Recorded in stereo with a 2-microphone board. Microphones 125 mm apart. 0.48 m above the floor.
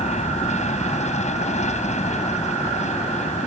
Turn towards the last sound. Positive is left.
turn(degrees=65)  # may be behind; listen again after turning